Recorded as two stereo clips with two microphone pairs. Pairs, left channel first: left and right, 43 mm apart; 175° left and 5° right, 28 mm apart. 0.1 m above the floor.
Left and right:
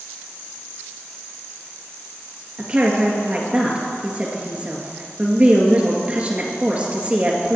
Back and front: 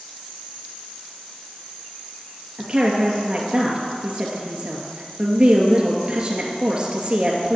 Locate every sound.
2.6 s a woman speaking: 45° right, 2 m